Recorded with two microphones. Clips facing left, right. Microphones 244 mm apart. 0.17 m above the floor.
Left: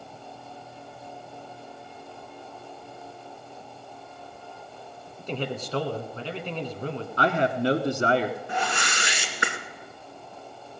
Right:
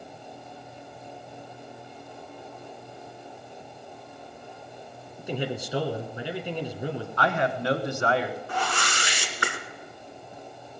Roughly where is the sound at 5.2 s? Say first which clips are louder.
Right 1 dB; centre.